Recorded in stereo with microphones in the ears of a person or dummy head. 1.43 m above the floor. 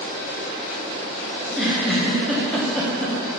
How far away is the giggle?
About 1.4 m.